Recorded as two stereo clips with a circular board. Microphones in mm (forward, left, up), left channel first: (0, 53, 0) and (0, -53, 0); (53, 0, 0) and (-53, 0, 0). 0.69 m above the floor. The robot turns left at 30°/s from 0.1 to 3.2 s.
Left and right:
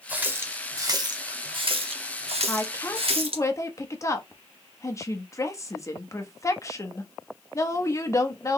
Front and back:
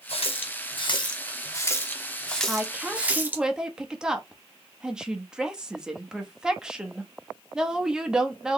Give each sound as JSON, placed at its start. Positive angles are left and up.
{"t": 0.1, "sound": "a running tap", "azimuth_deg": -15, "distance_m": 0.8}
{"t": 2.5, "sound": "a woman speaking", "azimuth_deg": 125, "distance_m": 0.9}